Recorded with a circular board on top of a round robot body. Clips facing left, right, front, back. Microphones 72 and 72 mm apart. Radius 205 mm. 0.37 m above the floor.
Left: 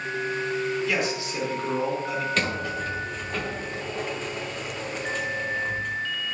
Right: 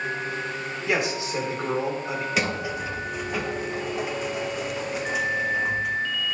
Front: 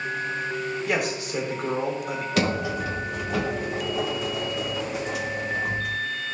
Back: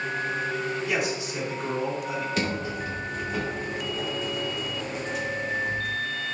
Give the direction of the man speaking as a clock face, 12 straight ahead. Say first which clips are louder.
Right 1 dB, front 1 dB; 1 o'clock.